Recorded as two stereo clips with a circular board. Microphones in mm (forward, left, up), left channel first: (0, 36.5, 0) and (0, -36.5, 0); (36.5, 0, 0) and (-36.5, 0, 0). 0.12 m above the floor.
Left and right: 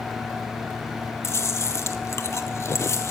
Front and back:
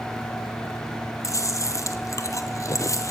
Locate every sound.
1.2 s chewing: 40° left, 0.8 m